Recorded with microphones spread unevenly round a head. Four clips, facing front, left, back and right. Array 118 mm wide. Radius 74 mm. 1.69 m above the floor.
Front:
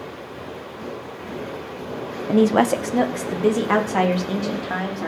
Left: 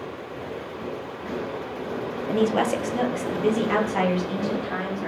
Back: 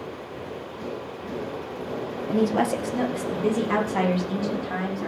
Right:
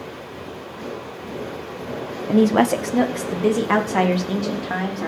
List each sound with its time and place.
2.3 s a woman speaking: 15° right, 1.5 m; by 5.1 s 25° right, 5.5 m